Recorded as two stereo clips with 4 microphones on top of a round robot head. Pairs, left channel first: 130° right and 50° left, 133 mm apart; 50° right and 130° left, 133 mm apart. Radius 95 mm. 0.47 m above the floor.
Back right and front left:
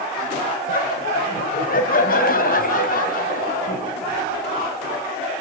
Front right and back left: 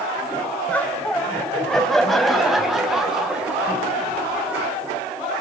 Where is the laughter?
130° right, 3 m; by 4.7 s 150° right, 5 m.